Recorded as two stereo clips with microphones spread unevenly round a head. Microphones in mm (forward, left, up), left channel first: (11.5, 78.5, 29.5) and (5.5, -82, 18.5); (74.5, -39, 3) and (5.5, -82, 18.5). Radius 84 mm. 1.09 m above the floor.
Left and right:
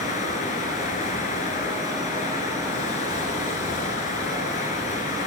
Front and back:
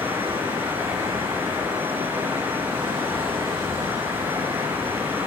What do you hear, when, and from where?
0.0 s running water: 135° left, 5.5 m